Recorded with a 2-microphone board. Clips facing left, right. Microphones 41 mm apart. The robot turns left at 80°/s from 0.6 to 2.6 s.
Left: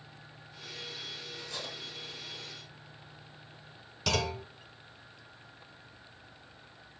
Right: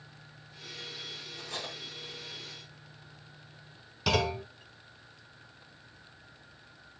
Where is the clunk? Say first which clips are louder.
Right 3 dB; 10° right (ahead or behind), 1.3 m.